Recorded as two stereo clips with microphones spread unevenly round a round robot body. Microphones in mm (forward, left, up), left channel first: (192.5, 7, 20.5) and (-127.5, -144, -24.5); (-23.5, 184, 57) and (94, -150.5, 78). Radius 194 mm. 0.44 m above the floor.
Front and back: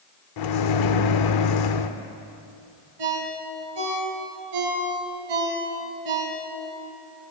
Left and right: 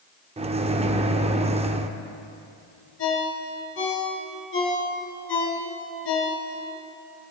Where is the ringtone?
170° left, 3 m.